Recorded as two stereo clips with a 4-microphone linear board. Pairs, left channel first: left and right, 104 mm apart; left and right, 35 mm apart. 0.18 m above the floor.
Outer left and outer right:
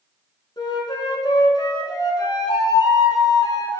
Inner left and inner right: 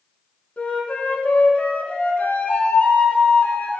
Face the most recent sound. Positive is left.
turn(degrees=45)  # may be behind; listen again after turning